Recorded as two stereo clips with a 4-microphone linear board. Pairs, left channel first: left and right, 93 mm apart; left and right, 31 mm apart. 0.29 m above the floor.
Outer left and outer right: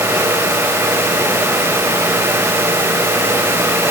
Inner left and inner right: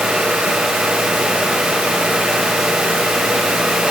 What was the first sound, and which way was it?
Only background noise.